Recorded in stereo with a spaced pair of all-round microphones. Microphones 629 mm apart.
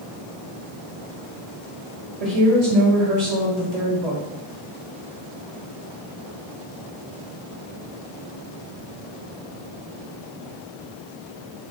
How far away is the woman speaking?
About 1.7 m.